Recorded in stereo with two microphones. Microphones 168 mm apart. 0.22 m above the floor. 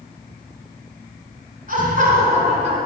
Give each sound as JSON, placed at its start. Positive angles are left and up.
{"t": 1.7, "sound": "laughter", "side_deg": -55, "distance_m": 1.9}